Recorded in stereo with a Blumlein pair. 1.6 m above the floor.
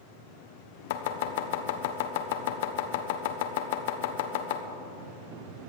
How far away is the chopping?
About 1.1 m.